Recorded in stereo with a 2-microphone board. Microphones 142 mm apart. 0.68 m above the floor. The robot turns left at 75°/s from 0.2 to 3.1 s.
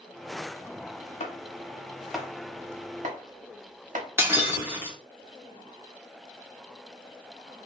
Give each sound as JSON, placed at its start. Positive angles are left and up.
{"t": 1.2, "sound": "chopping", "side_deg": 60, "distance_m": 0.8}
{"t": 4.2, "sound": "breaking glass", "side_deg": -15, "distance_m": 0.8}